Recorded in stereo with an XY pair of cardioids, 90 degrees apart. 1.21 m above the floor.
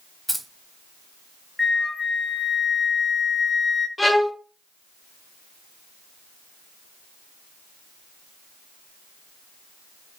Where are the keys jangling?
5° right, 0.7 m.